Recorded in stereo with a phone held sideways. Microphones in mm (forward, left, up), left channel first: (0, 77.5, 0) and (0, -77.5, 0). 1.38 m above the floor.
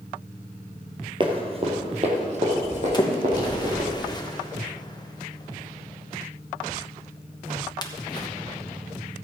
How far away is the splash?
About 1.2 m.